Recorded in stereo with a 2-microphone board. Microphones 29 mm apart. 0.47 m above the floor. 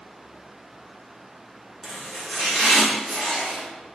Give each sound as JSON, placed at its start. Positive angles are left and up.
{"t": 1.8, "sound": "chopping", "side_deg": 5, "distance_m": 1.3}